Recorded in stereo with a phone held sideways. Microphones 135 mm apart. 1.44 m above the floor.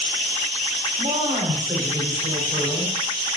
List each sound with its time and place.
1.0 s a woman speaking: 50° right (ahead or behind), 5.5 m